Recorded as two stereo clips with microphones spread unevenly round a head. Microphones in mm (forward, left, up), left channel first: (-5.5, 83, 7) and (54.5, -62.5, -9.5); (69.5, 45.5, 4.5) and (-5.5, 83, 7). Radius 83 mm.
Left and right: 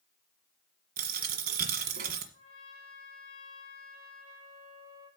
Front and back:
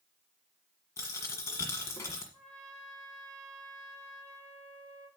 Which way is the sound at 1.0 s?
85° right.